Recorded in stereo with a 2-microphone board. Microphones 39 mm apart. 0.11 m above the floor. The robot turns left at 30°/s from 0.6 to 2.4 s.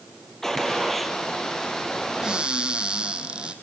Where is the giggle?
No giggle in this recording.